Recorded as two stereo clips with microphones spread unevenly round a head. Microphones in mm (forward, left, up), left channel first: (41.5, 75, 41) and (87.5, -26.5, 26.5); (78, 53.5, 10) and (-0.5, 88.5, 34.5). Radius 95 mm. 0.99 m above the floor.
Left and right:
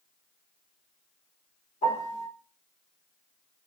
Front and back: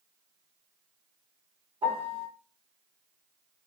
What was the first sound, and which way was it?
A piano, 135° left.